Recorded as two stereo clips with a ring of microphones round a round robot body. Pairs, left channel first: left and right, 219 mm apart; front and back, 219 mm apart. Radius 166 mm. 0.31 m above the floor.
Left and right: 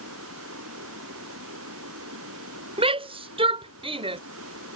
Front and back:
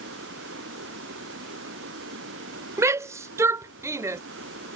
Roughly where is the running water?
Behind right.